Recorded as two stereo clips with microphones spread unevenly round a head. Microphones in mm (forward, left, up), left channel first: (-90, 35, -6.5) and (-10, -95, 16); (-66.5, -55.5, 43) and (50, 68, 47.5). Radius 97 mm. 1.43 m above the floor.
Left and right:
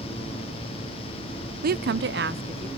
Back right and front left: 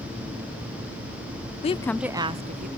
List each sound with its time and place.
1.6 s a woman speaking: 85° right, 0.6 m; by 2.7 s 5° left, 1.0 m